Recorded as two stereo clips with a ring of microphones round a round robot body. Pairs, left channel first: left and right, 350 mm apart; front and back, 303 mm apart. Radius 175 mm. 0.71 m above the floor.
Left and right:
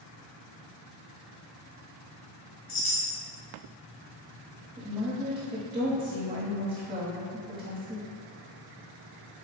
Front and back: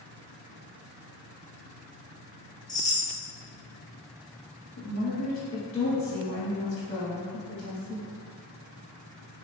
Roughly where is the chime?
Left.